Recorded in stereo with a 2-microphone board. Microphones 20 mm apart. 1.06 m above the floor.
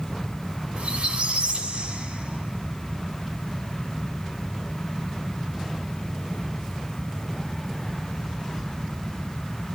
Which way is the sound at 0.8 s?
80° right.